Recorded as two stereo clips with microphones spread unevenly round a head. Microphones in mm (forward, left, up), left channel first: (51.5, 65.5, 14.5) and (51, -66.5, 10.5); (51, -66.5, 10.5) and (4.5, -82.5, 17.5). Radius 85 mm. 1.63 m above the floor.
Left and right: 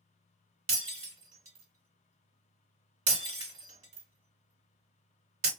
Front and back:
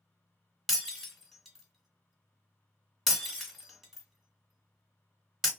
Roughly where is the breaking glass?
Right.